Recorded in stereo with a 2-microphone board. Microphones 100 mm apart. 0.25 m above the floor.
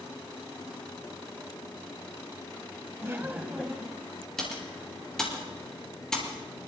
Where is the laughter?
30° right (ahead or behind), 1.1 m; by 4.1 s 5° left (ahead or behind), 1.4 m.